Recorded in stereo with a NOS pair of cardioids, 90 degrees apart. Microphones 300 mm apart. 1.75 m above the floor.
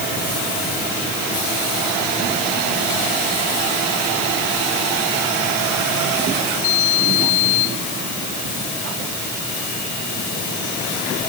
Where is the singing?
No singing in this recording.